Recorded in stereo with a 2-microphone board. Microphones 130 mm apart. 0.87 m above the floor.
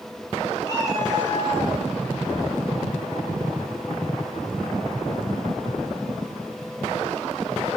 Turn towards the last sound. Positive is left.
turn(degrees=30)  # may be behind; listen again after turning